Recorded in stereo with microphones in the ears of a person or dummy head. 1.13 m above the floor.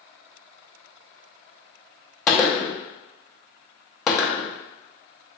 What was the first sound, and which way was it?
A gunshot, 15° left (ahead or behind).